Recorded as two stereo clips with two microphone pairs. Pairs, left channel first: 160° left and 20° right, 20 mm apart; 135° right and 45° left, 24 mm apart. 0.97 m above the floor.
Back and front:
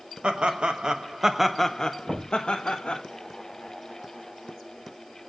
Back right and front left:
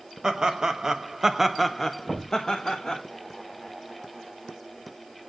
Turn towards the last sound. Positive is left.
turn(degrees=-15)